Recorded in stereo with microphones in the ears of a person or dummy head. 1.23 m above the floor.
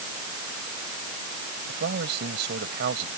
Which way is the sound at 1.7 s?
55° right (ahead or behind).